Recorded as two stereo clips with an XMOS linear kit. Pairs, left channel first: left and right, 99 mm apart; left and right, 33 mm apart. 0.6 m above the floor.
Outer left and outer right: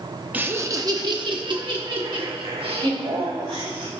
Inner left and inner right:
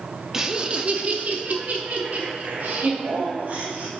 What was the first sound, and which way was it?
Laughter, 15° right (ahead or behind).